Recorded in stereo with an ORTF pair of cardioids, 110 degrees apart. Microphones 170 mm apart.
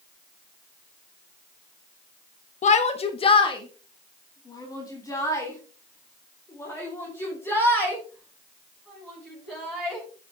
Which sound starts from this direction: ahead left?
A shout, at 2.6 s.